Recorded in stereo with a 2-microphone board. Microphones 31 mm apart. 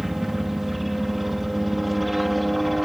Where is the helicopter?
10° right (ahead or behind); by 2.9 s 5° right (ahead or behind).